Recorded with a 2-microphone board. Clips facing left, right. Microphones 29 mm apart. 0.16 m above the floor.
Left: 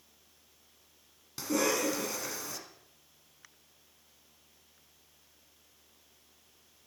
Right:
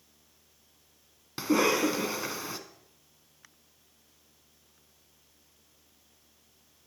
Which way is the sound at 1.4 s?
35° right (ahead or behind).